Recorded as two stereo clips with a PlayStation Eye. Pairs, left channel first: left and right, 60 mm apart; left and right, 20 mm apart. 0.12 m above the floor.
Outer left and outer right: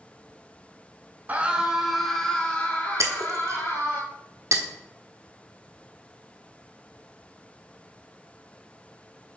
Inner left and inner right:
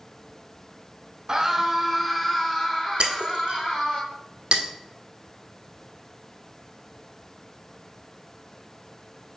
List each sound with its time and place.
1.3 s a scream: 25° right (ahead or behind), 1.1 m; by 4.0 s 35° left (ahead or behind), 2.5 m
3.0 s breaking glass: 55° right (ahead or behind), 1.1 m